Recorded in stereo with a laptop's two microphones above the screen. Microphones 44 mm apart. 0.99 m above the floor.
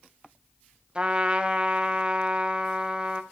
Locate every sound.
0.9 s a trumpet: 25° right (ahead or behind), 0.8 m